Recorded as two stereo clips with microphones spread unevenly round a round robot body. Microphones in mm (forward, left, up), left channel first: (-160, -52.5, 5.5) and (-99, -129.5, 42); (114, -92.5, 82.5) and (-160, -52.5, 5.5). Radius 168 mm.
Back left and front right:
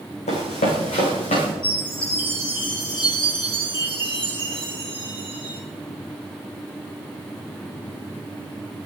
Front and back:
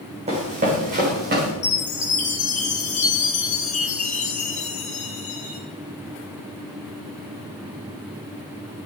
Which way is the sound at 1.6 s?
60° left.